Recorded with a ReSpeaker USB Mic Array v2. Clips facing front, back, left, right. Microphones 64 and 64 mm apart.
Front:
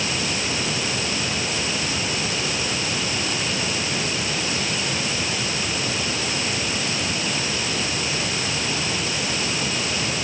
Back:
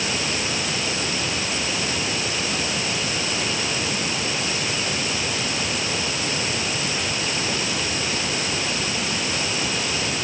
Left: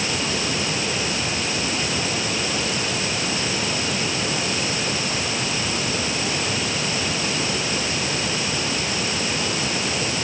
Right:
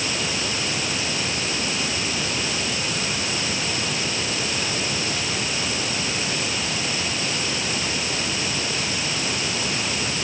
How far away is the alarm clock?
No alarm clock in this recording.